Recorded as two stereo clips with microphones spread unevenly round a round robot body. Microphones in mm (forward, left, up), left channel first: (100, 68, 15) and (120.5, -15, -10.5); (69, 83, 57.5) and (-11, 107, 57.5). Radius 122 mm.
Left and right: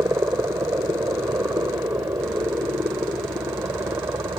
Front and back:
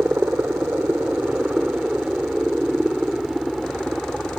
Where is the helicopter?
130° right; by 4.4 s 105° right.